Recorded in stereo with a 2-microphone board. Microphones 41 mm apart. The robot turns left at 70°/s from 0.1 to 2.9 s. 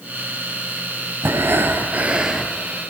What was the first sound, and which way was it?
Breathing, 90° right.